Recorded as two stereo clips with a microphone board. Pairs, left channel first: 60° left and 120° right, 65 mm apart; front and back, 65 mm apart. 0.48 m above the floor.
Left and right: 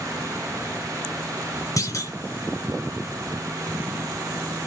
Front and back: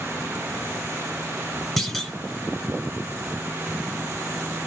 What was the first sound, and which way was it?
A clunk, 90° left.